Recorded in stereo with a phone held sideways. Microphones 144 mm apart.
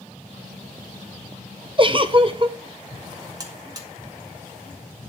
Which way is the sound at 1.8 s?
35° right (ahead or behind).